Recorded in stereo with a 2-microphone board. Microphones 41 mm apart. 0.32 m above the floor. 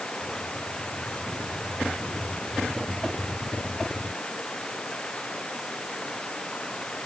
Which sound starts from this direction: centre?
Running water, at 0.0 s.